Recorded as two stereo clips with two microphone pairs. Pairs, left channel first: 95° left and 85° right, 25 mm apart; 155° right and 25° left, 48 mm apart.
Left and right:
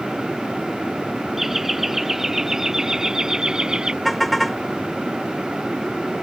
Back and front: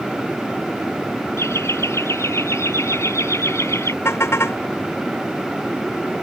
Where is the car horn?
Straight behind.